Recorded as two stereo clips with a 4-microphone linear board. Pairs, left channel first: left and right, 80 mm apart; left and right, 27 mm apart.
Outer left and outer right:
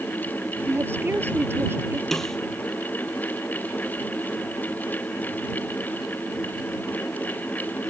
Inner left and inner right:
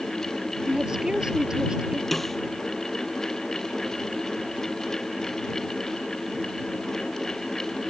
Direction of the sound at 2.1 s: 5° left (ahead or behind).